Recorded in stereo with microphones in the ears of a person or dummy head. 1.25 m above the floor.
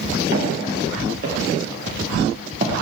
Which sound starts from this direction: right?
Footsteps, at 0.3 s.